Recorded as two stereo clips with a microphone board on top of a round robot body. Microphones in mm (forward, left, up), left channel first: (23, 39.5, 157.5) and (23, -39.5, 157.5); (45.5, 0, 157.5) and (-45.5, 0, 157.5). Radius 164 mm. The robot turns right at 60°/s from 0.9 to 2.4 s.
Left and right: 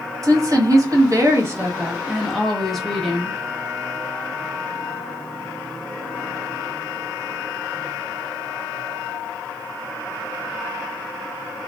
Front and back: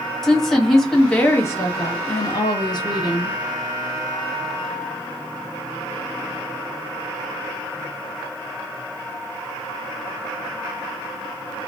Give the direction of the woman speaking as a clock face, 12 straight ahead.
3 o'clock.